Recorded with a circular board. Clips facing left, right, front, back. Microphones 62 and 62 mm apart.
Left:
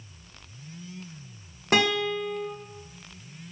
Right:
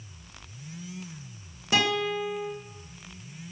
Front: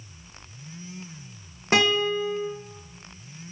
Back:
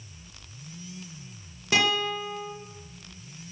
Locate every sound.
1.7 s a guitar: 55° left, 2.5 m